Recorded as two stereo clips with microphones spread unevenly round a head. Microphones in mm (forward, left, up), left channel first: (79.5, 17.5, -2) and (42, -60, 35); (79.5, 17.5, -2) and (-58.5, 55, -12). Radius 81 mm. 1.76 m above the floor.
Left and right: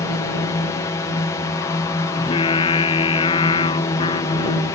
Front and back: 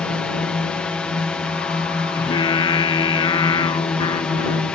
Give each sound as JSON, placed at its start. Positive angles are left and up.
{"t": 0.0, "sound": "a drone", "azimuth_deg": 70}
{"t": 2.1, "sound": "singing", "azimuth_deg": 40}